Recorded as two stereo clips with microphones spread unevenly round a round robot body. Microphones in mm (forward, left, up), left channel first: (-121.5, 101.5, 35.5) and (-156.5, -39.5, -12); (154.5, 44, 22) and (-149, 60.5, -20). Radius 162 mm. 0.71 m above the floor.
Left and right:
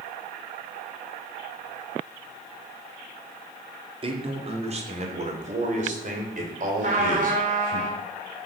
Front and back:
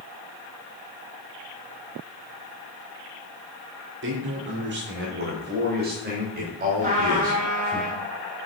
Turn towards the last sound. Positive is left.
turn(degrees=-115)